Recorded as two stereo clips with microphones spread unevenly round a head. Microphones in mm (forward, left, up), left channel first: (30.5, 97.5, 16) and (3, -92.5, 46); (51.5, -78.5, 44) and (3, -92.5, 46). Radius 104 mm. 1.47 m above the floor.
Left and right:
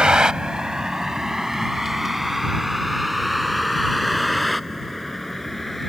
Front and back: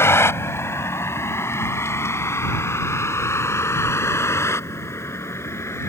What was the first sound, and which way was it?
A vehicle, 15° right.